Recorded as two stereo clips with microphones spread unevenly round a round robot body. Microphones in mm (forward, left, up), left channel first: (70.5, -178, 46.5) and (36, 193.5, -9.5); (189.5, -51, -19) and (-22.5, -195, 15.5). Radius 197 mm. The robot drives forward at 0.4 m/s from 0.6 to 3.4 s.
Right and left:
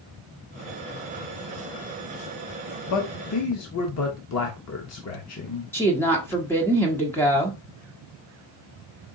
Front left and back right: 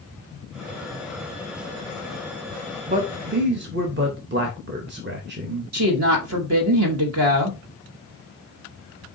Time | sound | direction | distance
2.9 | a man speaking | 95° right | 0.7 m
5.7 | a woman speaking | 175° right | 0.9 m